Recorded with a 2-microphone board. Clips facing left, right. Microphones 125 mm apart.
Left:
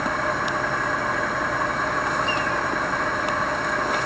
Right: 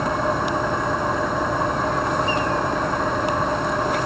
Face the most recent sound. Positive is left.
turn(degrees=-20)  # may be behind; listen again after turning